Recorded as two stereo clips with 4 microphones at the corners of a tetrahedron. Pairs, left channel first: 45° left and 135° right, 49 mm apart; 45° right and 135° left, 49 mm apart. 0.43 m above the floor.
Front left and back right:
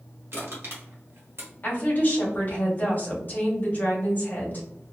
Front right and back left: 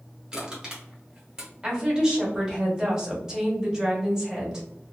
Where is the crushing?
155° right, 1.3 m.